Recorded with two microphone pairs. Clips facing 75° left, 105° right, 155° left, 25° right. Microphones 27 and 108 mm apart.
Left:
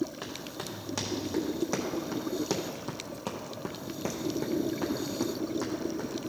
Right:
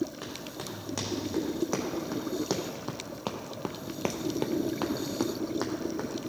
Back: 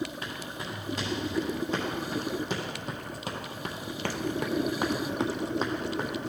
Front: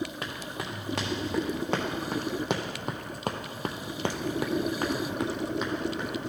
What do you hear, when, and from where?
0.2 s running footsteps: 15° right, 2.5 m; by 6.3 s 160° right, 1.5 m